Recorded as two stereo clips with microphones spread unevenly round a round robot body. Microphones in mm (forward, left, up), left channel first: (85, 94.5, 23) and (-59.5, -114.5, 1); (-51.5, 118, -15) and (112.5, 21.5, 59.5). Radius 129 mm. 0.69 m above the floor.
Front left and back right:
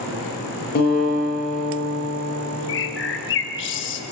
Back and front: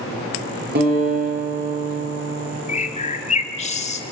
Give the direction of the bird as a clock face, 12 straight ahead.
9 o'clock.